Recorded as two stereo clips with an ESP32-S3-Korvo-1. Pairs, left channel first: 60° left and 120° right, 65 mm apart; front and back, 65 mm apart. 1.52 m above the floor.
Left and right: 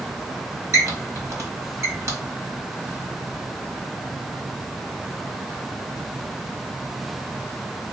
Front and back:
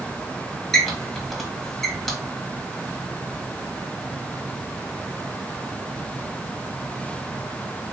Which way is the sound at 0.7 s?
85° right.